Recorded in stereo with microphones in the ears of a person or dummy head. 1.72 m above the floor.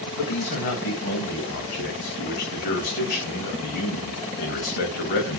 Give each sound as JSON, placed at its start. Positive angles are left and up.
{"t": 0.2, "sound": "a man speaking", "side_deg": 50, "distance_m": 0.9}